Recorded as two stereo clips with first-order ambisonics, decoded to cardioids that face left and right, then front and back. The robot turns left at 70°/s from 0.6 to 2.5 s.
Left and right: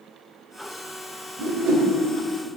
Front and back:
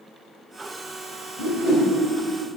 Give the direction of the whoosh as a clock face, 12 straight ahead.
1 o'clock.